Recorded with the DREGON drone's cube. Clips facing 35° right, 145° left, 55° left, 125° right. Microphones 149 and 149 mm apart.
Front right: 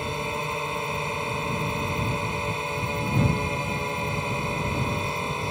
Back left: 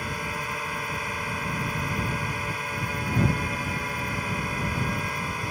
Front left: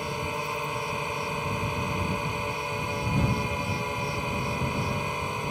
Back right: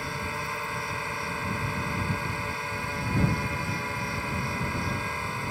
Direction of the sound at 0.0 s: 5° left.